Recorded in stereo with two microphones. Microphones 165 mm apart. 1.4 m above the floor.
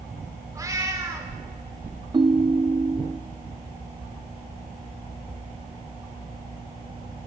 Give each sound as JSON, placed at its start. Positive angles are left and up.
{"t": 0.6, "sound": "a cat meowing", "side_deg": -20, "distance_m": 2.0}
{"t": 2.1, "sound": "a ringtone", "side_deg": -25, "distance_m": 0.6}